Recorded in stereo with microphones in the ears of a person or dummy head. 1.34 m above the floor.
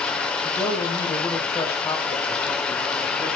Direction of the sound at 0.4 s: 10° left (ahead or behind).